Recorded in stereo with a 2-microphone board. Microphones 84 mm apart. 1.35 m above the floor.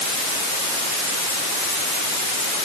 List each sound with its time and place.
Only background noise.